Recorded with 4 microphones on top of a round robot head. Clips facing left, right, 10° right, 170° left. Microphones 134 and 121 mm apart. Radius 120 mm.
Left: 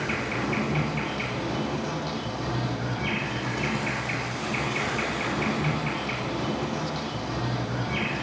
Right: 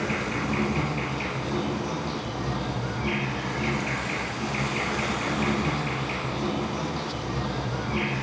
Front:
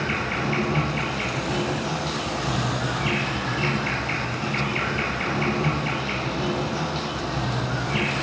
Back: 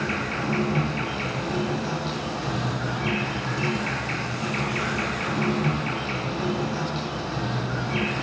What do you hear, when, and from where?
0.0 s an insect: 70° left, 2 m